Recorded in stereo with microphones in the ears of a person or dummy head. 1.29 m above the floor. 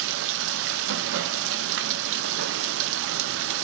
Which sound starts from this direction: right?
Running water, at 0.0 s.